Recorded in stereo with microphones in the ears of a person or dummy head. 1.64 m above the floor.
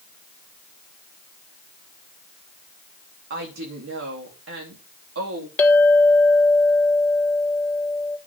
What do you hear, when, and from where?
3.3 s a woman speaking: 60° right (ahead or behind), 3 m; by 5.5 s 85° right, 3.5 m
5.6 s a clink: 10° left (ahead or behind), 1.1 m